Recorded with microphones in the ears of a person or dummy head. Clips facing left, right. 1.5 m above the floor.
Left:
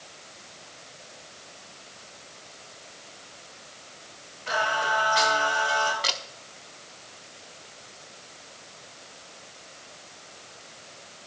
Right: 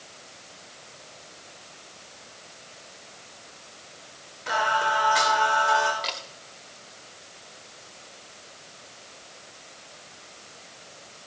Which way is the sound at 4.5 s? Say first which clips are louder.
Right 2 dB; 75° right (ahead or behind).